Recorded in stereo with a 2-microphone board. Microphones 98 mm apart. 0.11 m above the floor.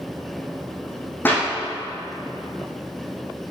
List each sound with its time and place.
1.2 s a clap: 20° left (ahead or behind), 4 m